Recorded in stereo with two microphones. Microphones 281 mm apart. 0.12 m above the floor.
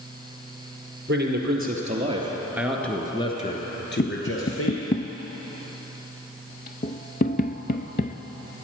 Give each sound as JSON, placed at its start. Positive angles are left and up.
{"t": 1.1, "sound": "a man speaking", "side_deg": -40, "distance_m": 2.0}
{"t": 4.0, "sound": "tapping", "side_deg": 35, "distance_m": 0.5}